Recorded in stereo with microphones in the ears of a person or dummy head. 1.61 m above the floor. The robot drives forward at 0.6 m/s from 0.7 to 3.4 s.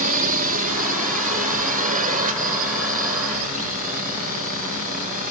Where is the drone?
45° right (ahead or behind).